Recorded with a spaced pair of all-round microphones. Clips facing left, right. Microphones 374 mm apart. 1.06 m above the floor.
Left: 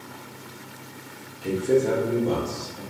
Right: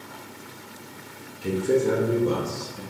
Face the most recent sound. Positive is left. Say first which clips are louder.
# left 1 dB
turn(degrees=-15)  # may be behind; listen again after turning